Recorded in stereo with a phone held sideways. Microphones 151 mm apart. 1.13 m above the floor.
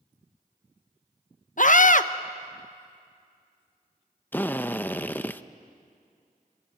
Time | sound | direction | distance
1.6 | a scream | 60° left (ahead or behind) | 0.9 m
4.3 | a drill | 10° left (ahead or behind) | 0.5 m